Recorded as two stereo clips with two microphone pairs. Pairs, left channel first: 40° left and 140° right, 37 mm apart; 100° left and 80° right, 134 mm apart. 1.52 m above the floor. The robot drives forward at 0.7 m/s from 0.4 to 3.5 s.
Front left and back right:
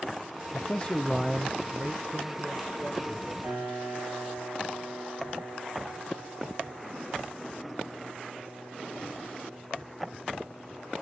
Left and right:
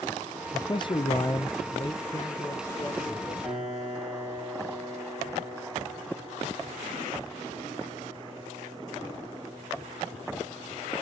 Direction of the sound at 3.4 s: 165° right.